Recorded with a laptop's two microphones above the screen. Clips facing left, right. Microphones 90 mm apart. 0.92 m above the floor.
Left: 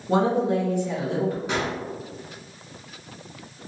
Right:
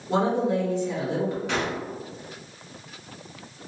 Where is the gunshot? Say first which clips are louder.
Left 1 dB; 20° left (ahead or behind), 1.7 m.